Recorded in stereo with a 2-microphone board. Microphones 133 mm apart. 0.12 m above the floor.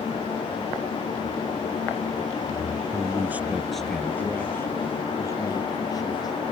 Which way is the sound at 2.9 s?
30° right (ahead or behind).